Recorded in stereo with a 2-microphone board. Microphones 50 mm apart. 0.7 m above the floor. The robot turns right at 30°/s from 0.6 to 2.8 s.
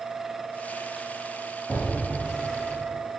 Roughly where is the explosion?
Behind.